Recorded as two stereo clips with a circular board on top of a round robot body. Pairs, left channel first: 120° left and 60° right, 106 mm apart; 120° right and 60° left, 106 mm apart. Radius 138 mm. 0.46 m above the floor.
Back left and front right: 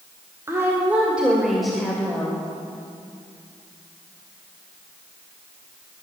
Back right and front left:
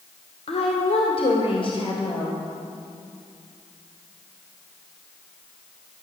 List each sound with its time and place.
0.5 s a woman speaking: 125° right, 2 m; by 2.4 s 160° right, 2.5 m